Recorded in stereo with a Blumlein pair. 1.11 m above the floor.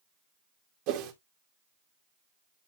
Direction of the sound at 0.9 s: 40° right.